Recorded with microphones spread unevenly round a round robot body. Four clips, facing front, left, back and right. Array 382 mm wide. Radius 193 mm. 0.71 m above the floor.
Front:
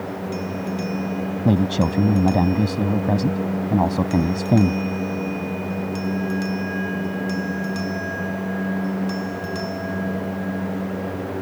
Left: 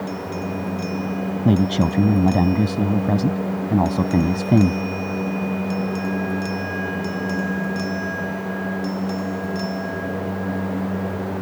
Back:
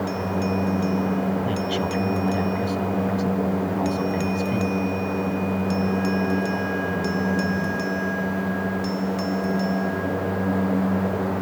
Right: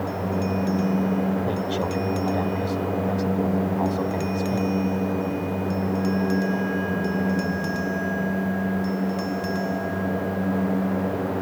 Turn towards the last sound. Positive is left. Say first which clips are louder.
# left 6 dB, front 5 dB
turn(degrees=55)